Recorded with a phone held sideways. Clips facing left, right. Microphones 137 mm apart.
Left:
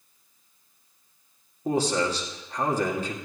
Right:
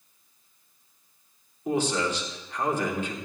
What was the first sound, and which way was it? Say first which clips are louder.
A man speaking: left 2 dB; 40° left (ahead or behind).